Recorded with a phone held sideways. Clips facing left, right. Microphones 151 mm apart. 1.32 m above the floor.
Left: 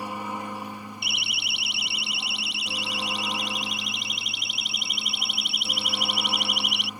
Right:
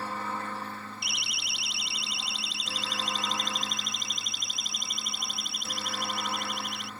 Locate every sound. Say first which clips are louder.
0.0 s a helicopter: left 2 dB; 15° left (ahead or behind)
1.0 s a siren: left 4 dB; 65° left (ahead or behind); by 6.9 s 85° left